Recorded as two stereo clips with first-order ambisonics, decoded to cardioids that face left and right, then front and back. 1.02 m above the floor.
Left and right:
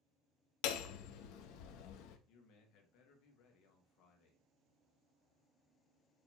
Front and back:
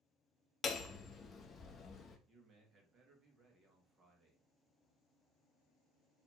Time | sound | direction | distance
0.6 | hammering | 70° left | 0.6 m
2.3 | a man speaking | 115° left | 1.3 m